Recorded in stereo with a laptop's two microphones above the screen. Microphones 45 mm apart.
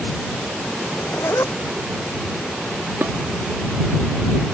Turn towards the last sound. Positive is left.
turn(degrees=-50)  # may be behind; listen again after turning